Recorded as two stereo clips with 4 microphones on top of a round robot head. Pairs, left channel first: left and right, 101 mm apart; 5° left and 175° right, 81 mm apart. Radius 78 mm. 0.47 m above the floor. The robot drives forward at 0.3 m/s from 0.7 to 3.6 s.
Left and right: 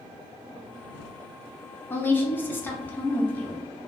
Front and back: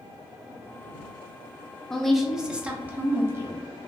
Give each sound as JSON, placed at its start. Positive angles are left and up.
{"t": 1.9, "sound": "a woman speaking", "azimuth_deg": 80, "distance_m": 0.7}